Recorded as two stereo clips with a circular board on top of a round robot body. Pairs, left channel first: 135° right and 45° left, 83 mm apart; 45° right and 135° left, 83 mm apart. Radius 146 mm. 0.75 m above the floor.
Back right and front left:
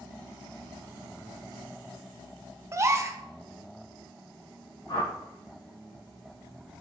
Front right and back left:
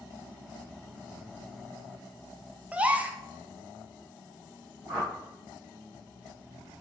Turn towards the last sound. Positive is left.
turn(degrees=-150)